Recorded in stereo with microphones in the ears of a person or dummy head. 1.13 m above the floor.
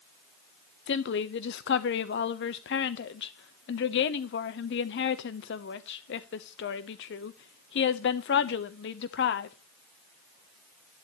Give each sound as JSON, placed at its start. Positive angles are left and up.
{"t": 0.9, "sound": "a woman speaking", "side_deg": 55, "distance_m": 1.0}